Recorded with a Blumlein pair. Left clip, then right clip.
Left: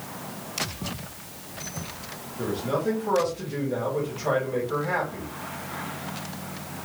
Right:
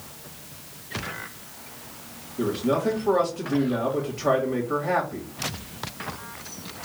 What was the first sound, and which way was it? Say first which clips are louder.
A man speaking: right 3 dB; 30° right.